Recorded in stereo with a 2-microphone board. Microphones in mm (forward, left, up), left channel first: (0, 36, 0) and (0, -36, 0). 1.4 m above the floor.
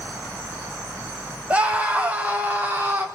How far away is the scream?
About 2.5 m.